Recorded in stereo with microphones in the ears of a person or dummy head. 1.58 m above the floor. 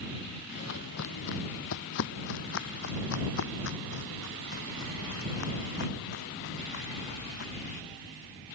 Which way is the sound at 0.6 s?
60° left (ahead or behind).